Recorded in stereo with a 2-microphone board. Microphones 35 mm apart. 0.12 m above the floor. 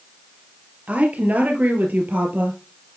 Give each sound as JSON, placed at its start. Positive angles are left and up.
{"t": 0.9, "sound": "a woman speaking", "side_deg": -45, "distance_m": 2.5}